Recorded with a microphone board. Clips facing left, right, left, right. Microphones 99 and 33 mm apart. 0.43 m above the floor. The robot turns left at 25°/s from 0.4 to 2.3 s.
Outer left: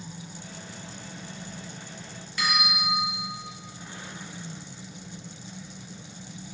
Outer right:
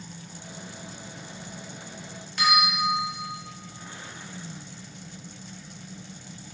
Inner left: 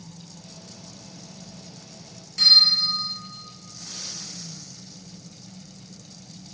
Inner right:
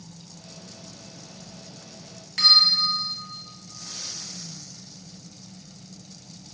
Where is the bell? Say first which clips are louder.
Outer right 5 dB, inner left 1 dB; 75° right (ahead or behind), 1.1 m.